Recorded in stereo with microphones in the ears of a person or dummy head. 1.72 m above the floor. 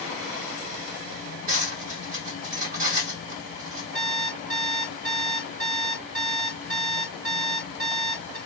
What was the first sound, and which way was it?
Cutlery clinking, 70° right (ahead or behind).